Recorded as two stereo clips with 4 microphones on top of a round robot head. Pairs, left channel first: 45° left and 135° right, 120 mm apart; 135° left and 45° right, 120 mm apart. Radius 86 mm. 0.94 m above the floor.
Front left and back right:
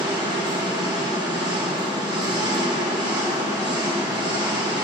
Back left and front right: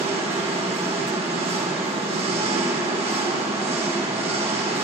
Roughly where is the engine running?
Right.